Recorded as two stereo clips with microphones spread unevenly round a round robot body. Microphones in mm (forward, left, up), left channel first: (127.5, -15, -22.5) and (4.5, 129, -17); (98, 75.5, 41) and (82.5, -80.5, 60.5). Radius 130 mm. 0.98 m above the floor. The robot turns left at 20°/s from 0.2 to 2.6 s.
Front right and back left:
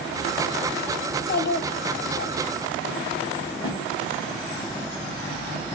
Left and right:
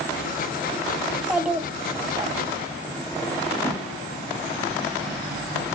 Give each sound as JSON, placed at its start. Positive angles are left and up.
{"t": 1.1, "sound": "a child speaking", "azimuth_deg": -5, "distance_m": 1.1}
{"t": 3.5, "sound": "a whoosh", "azimuth_deg": 15, "distance_m": 2.0}